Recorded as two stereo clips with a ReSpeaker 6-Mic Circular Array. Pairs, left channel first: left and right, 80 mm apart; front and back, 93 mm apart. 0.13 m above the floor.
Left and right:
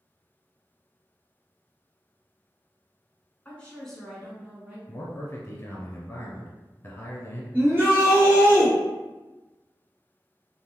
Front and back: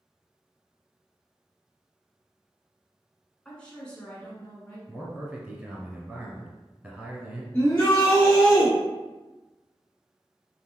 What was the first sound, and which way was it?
A woman speaking, 60° left.